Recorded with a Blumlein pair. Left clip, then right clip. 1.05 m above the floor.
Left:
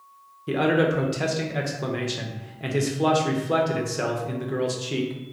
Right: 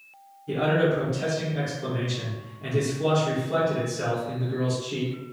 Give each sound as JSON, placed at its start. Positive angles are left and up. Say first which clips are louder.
{"t": 0.5, "sound": "a man speaking", "louder": "left 1 dB", "azimuth_deg": 30, "distance_m": 0.7}